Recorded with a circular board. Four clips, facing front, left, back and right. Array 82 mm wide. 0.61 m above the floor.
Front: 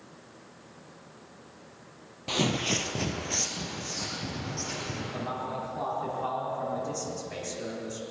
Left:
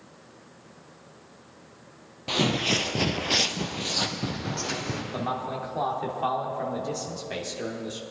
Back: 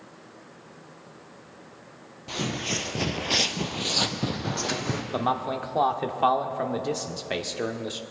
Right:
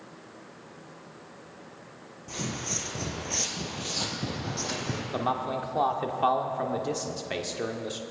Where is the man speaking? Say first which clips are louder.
Right 3 dB, back 8 dB; 160° right, 1.1 m.